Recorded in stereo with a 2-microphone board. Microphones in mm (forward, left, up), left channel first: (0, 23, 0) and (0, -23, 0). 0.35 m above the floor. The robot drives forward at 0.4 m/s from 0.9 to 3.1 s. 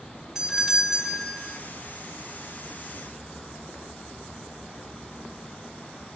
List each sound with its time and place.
0.3 s a doorbell: 10° right (ahead or behind), 1.8 m